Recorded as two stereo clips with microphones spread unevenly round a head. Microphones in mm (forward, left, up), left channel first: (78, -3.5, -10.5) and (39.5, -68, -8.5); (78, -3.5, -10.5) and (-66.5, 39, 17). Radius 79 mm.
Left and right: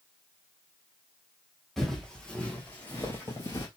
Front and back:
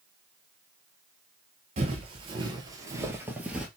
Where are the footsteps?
150° left, 1.6 m; by 3.7 s 90° left, 1.6 m.